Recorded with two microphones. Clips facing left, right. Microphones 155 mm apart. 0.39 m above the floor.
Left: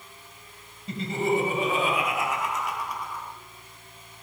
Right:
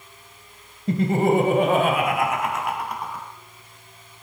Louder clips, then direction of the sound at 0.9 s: Right 7 dB; 60° right (ahead or behind).